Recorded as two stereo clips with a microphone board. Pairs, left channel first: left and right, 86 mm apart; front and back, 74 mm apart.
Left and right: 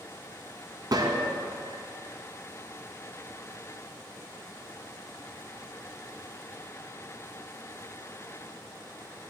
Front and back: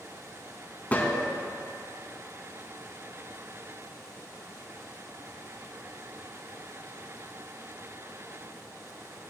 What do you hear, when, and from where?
0.9 s a gunshot: 65° right, 0.7 m